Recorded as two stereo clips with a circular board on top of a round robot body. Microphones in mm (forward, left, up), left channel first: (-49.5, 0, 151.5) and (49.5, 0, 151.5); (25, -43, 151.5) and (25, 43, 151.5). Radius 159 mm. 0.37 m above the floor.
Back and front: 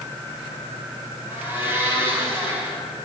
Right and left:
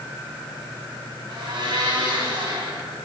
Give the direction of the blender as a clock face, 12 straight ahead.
10 o'clock.